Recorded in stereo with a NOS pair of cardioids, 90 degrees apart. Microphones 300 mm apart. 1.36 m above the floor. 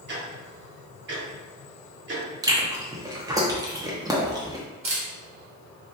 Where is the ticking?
40° right, 1.3 m.